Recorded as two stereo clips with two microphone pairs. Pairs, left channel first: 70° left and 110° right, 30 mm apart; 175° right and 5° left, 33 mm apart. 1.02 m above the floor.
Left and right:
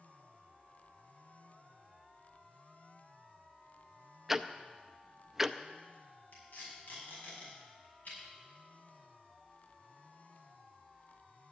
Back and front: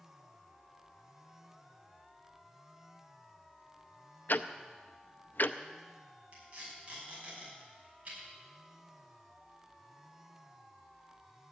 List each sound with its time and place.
4.3 s ticking: 175° left, 0.5 m
6.3 s tape being pulled: 40° left, 6.5 m